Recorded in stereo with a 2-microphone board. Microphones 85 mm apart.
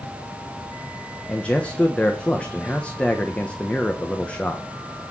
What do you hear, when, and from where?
1.3 s a man speaking: 15° left (ahead or behind), 1.2 m